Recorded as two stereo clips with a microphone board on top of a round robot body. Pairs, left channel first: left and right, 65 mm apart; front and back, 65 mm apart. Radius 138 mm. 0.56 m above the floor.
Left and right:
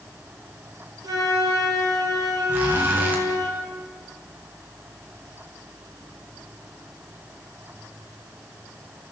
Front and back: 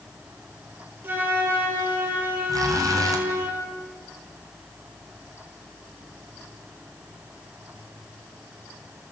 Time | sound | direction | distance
1.0 | a flute | 120° right | 4 m
2.5 | a zipper | 155° right | 3 m